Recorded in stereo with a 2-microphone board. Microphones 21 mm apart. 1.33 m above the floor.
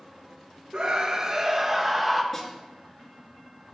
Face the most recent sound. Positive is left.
turn(degrees=10)  # may be behind; listen again after turning